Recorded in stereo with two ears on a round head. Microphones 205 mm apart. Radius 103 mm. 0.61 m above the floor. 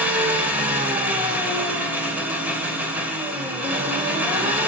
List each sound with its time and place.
0.0 s an engine running: 5° right (ahead or behind), 2.5 m